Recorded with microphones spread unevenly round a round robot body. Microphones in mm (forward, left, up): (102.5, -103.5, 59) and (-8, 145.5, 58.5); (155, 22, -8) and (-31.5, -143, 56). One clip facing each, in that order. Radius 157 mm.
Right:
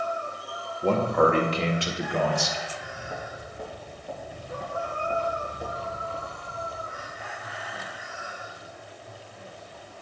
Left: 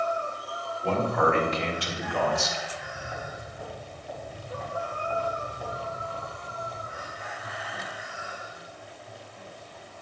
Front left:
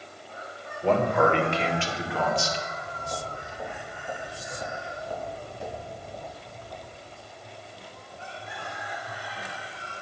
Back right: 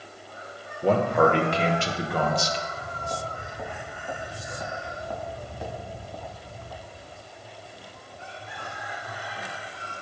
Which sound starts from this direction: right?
A man speaking, at 0.8 s.